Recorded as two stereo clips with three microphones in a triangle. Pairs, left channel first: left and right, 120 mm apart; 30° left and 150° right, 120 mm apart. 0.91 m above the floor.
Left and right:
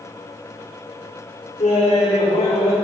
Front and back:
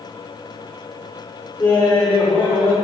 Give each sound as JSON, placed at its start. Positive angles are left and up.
{"t": 1.6, "sound": "laughter", "azimuth_deg": 80, "distance_m": 2.0}